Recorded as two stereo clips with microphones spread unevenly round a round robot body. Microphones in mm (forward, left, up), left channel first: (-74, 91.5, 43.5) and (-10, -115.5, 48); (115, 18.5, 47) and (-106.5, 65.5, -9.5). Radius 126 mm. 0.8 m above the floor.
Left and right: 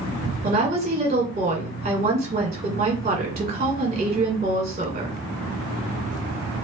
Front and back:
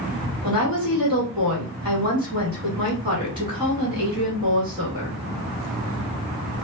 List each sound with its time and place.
0.4 s a woman speaking: 130° right, 1.6 m